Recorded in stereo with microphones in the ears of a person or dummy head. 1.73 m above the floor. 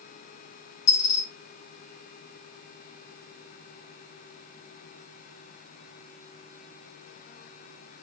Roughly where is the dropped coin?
Left.